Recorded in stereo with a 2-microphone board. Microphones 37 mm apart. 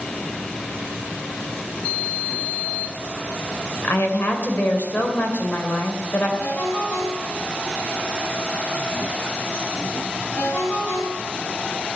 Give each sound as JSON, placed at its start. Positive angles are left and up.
{"t": 3.8, "sound": "a woman speaking", "side_deg": 60, "distance_m": 2.5}
{"t": 6.4, "sound": "a ringtone", "side_deg": 50, "distance_m": 3.5}